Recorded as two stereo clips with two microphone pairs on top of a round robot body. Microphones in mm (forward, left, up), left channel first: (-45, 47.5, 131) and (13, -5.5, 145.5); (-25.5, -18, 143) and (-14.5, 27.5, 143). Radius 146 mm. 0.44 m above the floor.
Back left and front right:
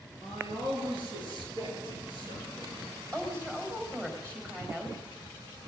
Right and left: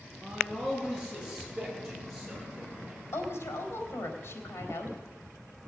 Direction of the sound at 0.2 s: 35° right.